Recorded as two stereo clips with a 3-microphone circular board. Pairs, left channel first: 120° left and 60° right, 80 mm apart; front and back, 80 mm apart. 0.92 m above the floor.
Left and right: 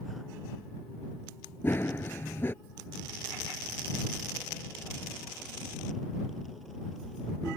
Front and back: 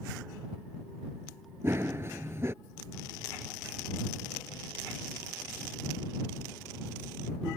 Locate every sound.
1.6 s running footsteps: 155° left